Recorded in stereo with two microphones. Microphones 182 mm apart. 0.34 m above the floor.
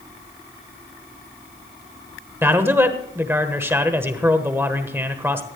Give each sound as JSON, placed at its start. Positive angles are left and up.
{"t": 2.4, "sound": "a man speaking", "side_deg": -10, "distance_m": 1.3}